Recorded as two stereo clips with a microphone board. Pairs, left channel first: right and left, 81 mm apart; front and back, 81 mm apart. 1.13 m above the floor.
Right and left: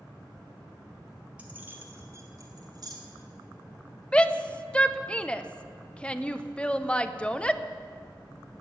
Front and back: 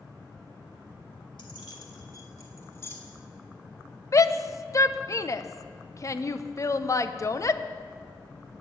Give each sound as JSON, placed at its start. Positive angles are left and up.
{"t": 1.4, "sound": "keys jangling", "azimuth_deg": 15, "distance_m": 2.0}
{"t": 4.1, "sound": "a shout", "azimuth_deg": -20, "distance_m": 0.7}